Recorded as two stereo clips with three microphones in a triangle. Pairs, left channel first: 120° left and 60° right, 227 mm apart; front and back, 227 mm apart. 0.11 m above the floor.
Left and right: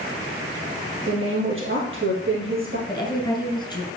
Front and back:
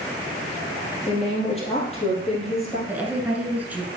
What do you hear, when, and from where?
1.1 s a woman speaking: 60° right, 2.5 m
2.9 s a woman speaking: 115° left, 1.1 m